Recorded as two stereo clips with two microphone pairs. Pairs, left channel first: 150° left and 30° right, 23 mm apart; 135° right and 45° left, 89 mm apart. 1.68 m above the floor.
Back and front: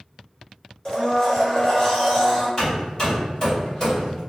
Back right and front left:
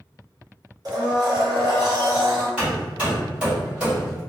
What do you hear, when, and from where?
0.8 s a blender: 90° left, 0.9 m
2.6 s hammering: 115° left, 1.7 m